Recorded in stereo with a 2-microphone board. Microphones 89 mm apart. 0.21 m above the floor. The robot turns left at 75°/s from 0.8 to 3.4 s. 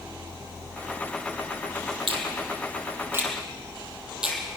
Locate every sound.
2.1 s a finger snap: 70° right (ahead or behind), 4.5 m; by 4.4 s 10° right (ahead or behind), 4.5 m